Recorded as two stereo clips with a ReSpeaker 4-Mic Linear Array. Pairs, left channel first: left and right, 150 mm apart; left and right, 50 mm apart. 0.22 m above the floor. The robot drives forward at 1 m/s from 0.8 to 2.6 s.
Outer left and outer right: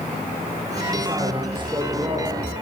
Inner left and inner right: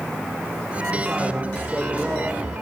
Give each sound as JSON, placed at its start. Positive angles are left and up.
{"t": 0.9, "sound": "a man speaking", "side_deg": -30, "distance_m": 8.5}